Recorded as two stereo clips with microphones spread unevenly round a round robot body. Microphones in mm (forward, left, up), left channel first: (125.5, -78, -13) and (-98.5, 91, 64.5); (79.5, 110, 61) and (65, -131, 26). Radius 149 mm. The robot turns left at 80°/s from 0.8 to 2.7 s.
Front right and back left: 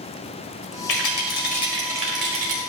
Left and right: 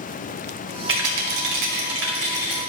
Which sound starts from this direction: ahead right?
A rattle, at 0.9 s.